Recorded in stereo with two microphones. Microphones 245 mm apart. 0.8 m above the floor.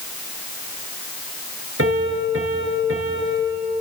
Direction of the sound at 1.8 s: 60° right (ahead or behind).